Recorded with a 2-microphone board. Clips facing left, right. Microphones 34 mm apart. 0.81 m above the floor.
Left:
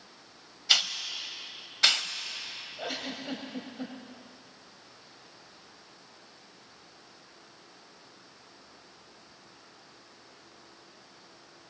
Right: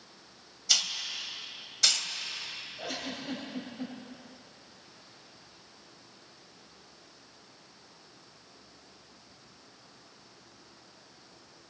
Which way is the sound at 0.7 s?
35° left (ahead or behind).